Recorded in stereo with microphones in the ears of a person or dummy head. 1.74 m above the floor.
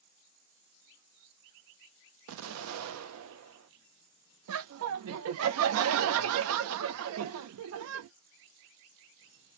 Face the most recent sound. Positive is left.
turn(degrees=-75)  # may be behind; listen again after turning